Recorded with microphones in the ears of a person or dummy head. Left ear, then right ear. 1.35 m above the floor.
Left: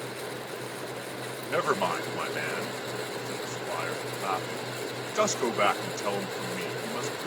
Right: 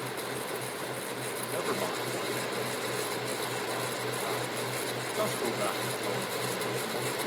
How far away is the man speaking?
About 1.1 m.